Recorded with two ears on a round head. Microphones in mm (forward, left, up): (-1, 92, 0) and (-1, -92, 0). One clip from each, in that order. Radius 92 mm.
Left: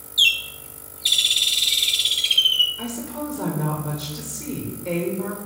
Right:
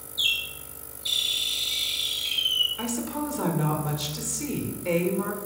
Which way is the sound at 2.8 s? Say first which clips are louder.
Even; 30° right (ahead or behind).